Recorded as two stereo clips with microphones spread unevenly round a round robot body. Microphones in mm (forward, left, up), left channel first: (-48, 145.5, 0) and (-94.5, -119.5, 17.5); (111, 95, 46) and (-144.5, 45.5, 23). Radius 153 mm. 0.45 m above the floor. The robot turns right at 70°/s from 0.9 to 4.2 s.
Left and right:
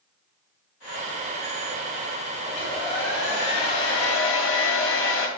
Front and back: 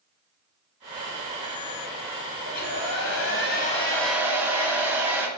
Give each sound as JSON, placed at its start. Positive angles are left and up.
{"t": 2.5, "sound": "a hair dryer", "azimuth_deg": -10, "distance_m": 1.5}